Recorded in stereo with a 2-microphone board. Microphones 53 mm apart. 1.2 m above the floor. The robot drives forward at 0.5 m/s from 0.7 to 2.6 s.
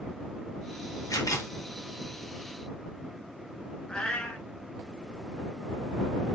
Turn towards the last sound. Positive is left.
turn(degrees=20)  # may be behind; listen again after turning